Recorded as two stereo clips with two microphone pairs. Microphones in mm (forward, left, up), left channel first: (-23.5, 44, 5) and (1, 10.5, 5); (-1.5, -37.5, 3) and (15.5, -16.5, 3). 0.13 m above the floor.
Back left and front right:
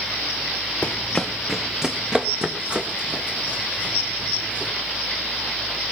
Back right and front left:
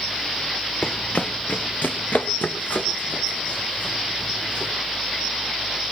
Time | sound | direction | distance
0.8 | running footsteps | straight behind | 0.9 m